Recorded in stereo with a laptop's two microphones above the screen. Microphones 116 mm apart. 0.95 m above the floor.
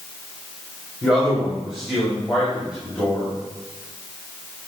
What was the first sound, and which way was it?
A man speaking, 5° right (ahead or behind).